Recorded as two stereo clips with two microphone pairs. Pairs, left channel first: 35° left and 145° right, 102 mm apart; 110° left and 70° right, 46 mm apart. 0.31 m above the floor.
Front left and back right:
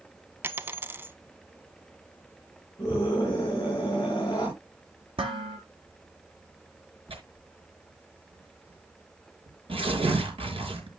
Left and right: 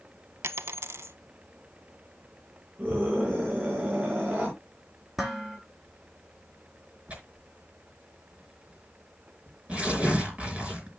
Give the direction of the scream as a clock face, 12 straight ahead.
12 o'clock.